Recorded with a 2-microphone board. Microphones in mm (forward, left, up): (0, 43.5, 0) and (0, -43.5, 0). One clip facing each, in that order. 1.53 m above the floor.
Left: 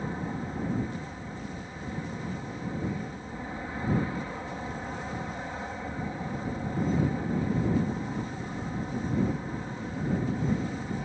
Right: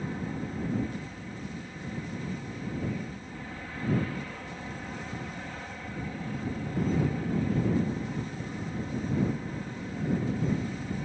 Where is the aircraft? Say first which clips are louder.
Left 1 dB; 25° left (ahead or behind).